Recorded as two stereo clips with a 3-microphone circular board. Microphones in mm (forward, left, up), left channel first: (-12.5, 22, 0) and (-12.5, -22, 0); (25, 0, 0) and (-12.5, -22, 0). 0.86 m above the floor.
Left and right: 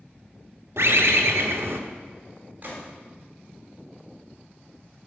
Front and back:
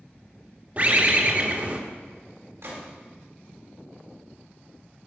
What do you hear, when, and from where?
0.8 s a bird: 95° right, 1.0 m
2.6 s a gunshot: 135° right, 3 m